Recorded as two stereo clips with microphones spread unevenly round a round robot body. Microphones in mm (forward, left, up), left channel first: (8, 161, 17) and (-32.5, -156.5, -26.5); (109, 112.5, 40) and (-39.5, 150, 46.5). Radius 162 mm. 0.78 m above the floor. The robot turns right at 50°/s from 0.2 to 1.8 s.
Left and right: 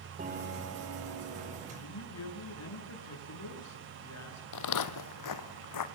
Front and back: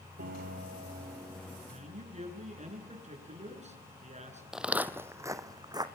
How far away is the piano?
About 2.5 m.